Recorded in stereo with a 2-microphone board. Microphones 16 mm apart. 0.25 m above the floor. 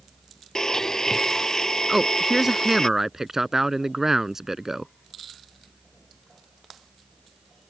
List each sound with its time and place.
0.6 s a blender: 30° left (ahead or behind)
1.9 s a man speaking: 25° right (ahead or behind)